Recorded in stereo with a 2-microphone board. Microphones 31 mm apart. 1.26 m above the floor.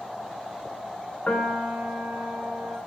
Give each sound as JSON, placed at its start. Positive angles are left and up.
{"t": 1.3, "sound": "a piano", "side_deg": 45, "distance_m": 3.5}